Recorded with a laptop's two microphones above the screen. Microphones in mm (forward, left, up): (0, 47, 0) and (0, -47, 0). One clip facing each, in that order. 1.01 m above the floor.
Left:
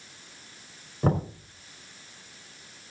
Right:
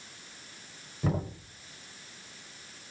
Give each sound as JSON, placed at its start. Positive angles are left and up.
{"t": 1.0, "sound": "knocking", "side_deg": 40, "distance_m": 4.0}